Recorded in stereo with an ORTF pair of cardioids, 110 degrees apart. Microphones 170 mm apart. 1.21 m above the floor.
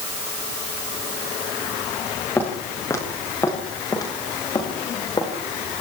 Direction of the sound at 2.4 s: 10° left.